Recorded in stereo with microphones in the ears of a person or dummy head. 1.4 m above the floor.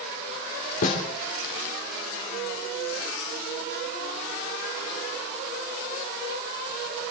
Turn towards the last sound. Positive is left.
turn(degrees=45)  # may be behind; listen again after turning